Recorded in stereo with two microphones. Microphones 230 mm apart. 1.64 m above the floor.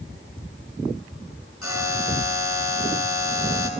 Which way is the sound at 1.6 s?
80° left.